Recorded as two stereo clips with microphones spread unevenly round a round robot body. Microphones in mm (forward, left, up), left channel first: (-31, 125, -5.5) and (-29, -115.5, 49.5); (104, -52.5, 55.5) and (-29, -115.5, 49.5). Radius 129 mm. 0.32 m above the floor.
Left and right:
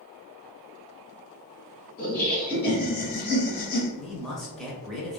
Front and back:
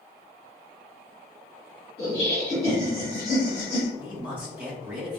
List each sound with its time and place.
2.0 s laughter: 70° left, 1.8 m
4.0 s a man speaking: 140° left, 0.9 m